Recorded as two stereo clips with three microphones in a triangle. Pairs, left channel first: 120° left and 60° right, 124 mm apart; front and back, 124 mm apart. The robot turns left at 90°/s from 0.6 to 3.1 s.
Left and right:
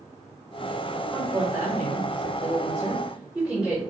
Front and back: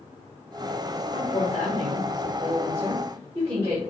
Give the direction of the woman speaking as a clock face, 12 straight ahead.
11 o'clock.